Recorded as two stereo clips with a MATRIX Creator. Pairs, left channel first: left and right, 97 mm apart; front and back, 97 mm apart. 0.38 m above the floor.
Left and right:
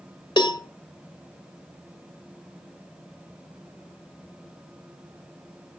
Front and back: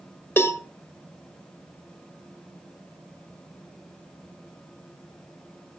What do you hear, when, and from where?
0.4 s a cowbell: 65° left, 1.1 m